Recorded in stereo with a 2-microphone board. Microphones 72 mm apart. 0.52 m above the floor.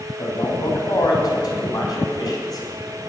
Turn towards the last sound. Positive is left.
turn(degrees=65)  # may be behind; listen again after turning